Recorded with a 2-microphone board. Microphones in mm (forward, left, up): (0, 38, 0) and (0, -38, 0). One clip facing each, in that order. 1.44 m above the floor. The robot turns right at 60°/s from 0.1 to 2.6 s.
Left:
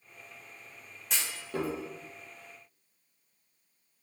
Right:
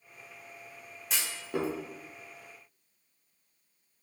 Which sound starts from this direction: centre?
A clunk, at 1.1 s.